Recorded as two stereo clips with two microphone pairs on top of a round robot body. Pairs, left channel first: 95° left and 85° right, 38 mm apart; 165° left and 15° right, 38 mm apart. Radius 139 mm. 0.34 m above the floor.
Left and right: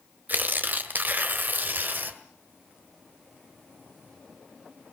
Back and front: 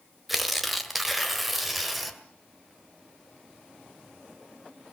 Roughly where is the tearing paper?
Right.